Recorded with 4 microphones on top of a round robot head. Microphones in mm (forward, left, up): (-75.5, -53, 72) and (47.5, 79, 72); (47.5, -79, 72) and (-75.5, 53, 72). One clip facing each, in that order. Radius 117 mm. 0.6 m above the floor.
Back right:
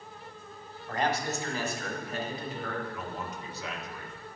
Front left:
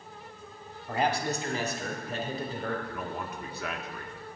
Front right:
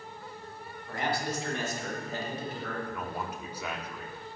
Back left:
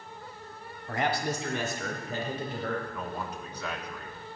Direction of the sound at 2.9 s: 35° left.